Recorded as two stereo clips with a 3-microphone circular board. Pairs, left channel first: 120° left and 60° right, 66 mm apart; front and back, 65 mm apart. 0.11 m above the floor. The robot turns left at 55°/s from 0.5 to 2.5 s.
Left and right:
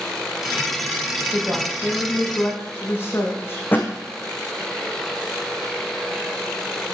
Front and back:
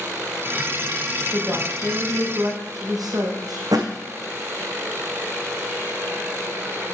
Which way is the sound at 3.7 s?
Straight behind.